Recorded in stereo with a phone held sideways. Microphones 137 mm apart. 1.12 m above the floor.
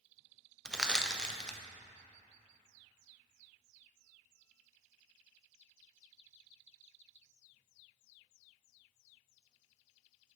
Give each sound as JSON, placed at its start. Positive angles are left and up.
{"t": 0.7, "sound": "crushing", "side_deg": 5, "distance_m": 0.5}